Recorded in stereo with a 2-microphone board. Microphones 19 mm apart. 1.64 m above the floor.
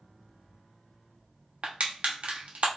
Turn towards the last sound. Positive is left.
turn(degrees=-75)  # may be behind; listen again after turning